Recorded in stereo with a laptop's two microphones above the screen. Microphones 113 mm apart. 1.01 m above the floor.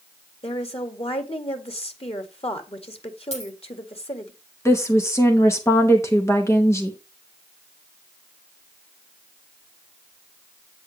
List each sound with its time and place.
0.4 s a woman speaking: 55° left (ahead or behind), 1.8 m
3.3 s a dropped coin: 60° left (ahead or behind), 4.5 m
4.7 s a woman speaking: 25° left (ahead or behind), 0.9 m